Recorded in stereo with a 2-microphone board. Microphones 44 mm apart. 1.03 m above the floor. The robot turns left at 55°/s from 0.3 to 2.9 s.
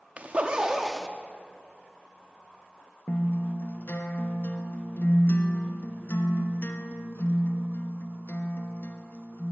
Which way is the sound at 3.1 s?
60° left (ahead or behind).